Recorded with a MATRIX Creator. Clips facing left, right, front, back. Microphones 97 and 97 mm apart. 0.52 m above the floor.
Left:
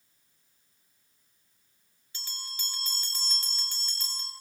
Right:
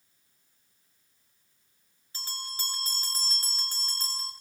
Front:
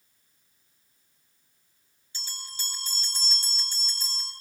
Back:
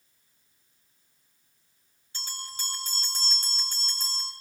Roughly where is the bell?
Behind right.